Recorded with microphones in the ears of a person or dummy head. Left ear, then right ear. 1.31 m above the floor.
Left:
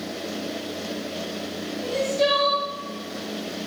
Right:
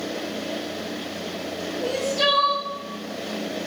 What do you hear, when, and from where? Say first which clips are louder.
1.8 s crying: even; 50° right (ahead or behind), 1.0 m